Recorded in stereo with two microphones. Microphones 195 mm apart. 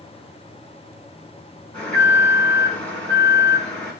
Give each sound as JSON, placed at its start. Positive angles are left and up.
{"t": 1.7, "sound": "an alarm", "side_deg": 5, "distance_m": 5.5}